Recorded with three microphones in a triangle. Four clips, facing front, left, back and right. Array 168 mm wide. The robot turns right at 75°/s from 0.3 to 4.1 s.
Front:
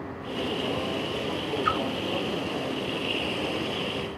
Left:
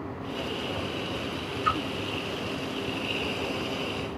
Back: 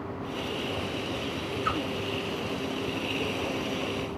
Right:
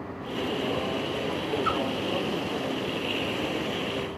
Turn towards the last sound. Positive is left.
turn(degrees=-90)